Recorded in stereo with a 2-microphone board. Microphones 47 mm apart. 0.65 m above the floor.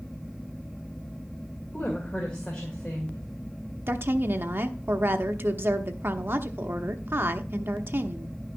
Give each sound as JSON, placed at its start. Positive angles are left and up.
{"t": 1.7, "sound": "a woman speaking", "side_deg": 20, "distance_m": 2.0}
{"t": 3.9, "sound": "a woman speaking", "side_deg": -50, "distance_m": 0.9}